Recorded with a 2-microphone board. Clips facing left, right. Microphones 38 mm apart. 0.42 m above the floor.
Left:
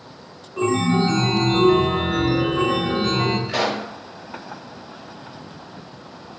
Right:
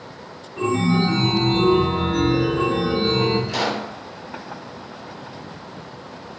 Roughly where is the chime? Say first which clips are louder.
Left 1 dB; left.